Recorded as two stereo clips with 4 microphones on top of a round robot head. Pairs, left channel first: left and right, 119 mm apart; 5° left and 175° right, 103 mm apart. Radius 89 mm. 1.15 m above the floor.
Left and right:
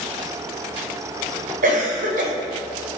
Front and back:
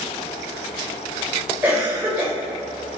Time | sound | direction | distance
1.6 | a cough | 100° right | 4.5 m